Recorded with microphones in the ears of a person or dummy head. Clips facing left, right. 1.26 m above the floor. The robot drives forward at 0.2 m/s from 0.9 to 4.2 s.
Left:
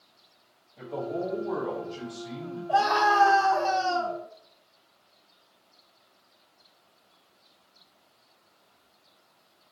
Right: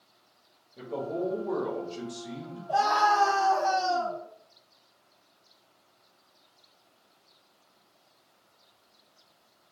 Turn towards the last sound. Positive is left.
turn(degrees=5)  # may be behind; listen again after turning